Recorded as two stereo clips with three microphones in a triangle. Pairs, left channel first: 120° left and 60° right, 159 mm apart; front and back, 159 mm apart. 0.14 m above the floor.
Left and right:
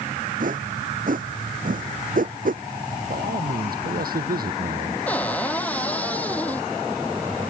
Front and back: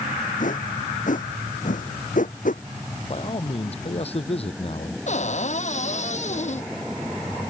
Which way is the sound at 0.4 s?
30° right.